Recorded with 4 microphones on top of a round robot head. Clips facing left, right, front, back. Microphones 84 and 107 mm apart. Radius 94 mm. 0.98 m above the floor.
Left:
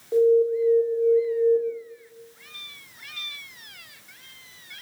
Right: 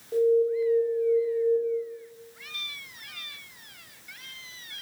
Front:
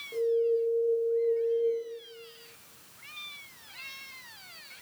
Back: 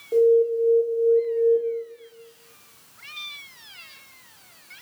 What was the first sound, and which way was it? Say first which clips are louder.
An alarm: left 4 dB, back 9 dB; 155° left.